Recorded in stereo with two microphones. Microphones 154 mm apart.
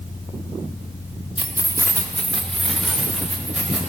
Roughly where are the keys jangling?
Left.